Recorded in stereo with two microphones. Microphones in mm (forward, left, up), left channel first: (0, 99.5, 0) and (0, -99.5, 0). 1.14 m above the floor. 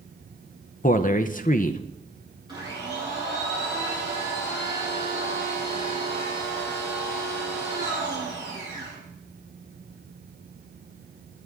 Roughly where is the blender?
Right.